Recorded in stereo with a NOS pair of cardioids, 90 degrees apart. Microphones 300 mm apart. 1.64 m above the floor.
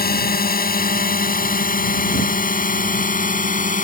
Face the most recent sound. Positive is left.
turn(degrees=25)